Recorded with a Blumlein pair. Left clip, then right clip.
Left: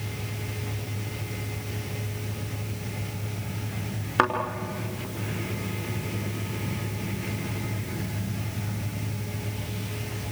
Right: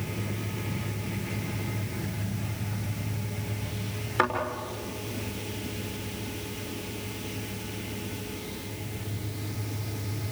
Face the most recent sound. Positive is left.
turn(degrees=20)